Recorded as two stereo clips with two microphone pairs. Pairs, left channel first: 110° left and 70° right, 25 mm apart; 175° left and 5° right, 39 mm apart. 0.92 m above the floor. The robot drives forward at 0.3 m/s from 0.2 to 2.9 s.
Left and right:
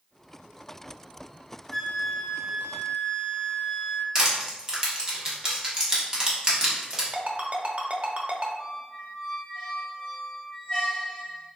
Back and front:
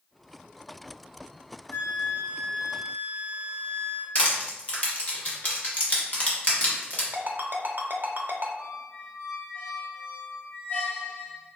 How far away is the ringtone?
About 0.6 m.